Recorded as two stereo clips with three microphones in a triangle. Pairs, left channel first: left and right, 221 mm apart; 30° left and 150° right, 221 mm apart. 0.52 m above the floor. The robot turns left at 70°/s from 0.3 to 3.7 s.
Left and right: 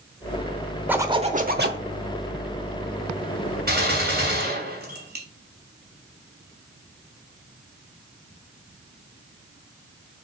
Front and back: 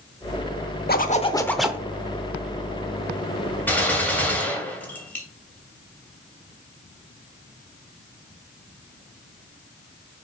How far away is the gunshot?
About 2.5 m.